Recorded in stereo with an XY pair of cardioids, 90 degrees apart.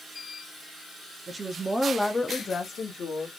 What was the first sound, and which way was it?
A woman speaking, 40° right.